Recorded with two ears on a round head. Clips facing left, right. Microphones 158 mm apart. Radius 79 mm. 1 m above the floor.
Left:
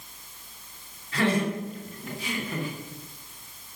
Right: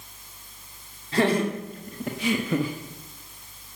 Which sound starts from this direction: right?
Laughter, at 1.1 s.